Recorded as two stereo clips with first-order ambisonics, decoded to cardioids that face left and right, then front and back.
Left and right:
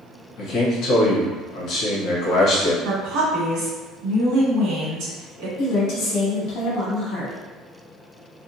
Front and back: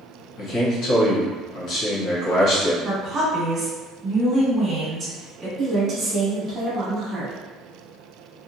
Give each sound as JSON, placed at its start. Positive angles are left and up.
{"t": 0.4, "sound": "a man speaking", "azimuth_deg": 45, "distance_m": 0.9}
{"t": 2.9, "sound": "a woman speaking", "azimuth_deg": -115, "distance_m": 1.5}
{"t": 5.6, "sound": "a woman speaking", "azimuth_deg": 120, "distance_m": 0.8}